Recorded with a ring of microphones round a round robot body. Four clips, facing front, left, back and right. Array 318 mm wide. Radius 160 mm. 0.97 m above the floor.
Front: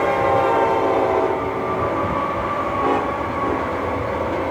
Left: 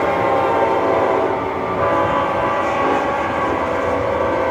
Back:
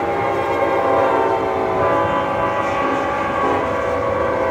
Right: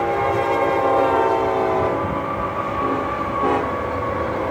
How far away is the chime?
I don't hear a chime.